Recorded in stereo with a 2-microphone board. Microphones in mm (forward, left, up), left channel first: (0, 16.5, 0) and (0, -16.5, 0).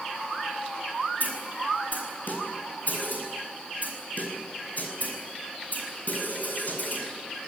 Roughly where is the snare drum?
Left.